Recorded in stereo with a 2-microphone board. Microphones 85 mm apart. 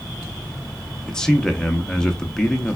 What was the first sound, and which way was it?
A man speaking, 10° left (ahead or behind).